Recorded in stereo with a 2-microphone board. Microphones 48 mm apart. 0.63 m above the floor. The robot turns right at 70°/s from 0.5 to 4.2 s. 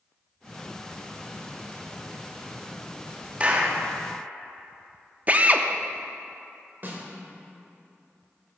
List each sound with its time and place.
3.4 s a clap: 25° right (ahead or behind), 1.0 m; by 3.8 s 35° right (ahead or behind), 1.0 m
5.3 s a drill: 35° right (ahead or behind), 0.5 m
6.8 s a snare drum: 45° right (ahead or behind), 1.6 m